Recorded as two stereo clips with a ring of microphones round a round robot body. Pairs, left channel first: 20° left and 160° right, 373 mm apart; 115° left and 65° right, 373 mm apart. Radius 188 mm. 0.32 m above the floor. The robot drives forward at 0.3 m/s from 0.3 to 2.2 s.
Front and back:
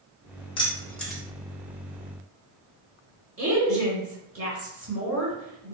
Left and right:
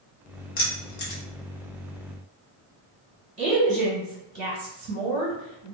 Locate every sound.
0.6 s keys jangling: 80° left, 0.7 m; by 1.2 s 115° left, 0.7 m
3.4 s a woman speaking: 125° right, 1.6 m